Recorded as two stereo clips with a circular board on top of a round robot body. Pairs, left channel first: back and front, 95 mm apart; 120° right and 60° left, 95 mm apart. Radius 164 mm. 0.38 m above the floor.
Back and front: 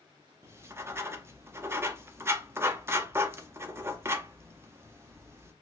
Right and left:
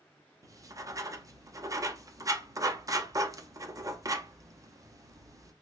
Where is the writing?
45° left, 0.9 m.